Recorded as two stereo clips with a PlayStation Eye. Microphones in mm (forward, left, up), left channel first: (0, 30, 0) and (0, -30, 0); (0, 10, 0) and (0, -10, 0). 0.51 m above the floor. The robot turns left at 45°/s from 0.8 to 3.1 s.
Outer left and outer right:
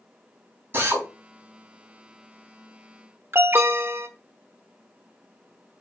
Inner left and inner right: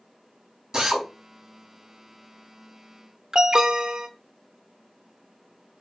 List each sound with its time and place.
0.7 s a drill: 40° right (ahead or behind), 4 m; by 1.1 s 30° right (ahead or behind), 4 m
3.3 s an alarm: 40° right (ahead or behind), 1.0 m